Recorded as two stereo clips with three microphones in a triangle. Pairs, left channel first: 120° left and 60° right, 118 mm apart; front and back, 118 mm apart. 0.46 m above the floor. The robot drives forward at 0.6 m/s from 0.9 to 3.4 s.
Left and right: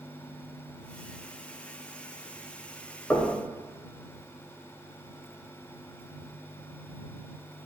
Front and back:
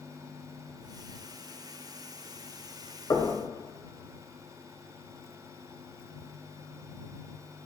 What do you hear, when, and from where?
3.1 s knocking: 50° left, 1.4 m; by 3.4 s 55° left, 1.4 m